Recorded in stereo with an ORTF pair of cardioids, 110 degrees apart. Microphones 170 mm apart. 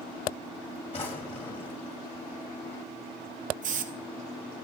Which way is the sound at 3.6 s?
50° right.